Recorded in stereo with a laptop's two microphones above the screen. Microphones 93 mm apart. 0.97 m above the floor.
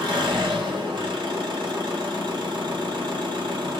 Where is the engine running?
50° right (ahead or behind), 1.7 m.